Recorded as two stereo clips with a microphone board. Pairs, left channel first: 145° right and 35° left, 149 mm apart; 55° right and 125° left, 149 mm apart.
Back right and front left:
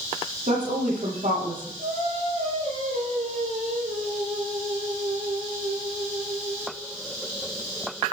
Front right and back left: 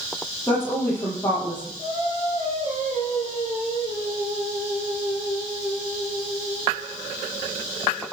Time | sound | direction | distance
0.5 | a woman speaking | 20° left | 8.5 m
1.8 | singing | 5° right | 9.5 m